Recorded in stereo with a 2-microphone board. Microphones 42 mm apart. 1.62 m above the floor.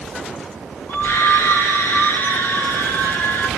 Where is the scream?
70° left (ahead or behind), 2.5 m; by 3.5 s 60° left (ahead or behind), 5 m.